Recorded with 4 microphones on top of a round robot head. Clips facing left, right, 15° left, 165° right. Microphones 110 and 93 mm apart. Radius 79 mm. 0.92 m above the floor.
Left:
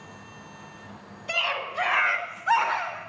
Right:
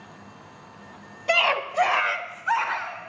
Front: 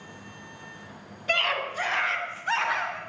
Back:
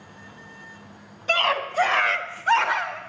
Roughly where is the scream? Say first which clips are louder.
Right 7 dB, back 5 dB; right.